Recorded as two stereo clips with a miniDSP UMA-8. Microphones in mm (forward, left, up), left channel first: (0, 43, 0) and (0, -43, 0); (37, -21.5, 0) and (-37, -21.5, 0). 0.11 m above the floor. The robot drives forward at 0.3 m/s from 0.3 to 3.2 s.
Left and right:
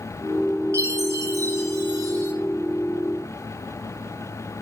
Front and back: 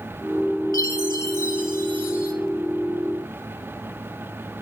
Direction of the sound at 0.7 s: 50° right.